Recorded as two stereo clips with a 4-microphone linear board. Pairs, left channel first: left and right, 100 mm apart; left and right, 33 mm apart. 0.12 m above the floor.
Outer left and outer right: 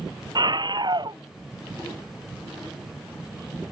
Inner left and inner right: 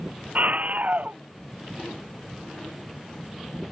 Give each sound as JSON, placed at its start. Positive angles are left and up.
{"t": 0.3, "sound": "a scream", "side_deg": -45}